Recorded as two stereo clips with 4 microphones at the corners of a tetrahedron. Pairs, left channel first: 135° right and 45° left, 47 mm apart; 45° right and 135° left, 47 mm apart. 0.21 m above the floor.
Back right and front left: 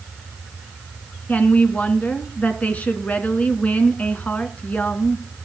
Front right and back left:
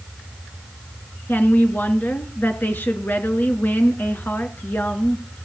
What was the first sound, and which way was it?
A woman speaking, 80° right.